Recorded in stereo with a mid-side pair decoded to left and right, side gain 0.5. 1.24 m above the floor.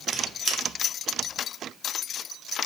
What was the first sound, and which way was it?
A squeak, 40° right.